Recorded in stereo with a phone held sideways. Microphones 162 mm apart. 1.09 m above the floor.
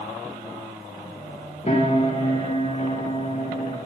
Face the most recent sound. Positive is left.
turn(degrees=35)  # may be behind; listen again after turning